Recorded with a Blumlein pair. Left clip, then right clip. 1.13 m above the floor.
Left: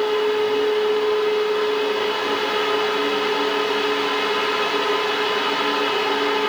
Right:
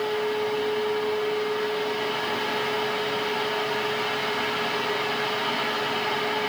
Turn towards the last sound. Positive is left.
turn(degrees=60)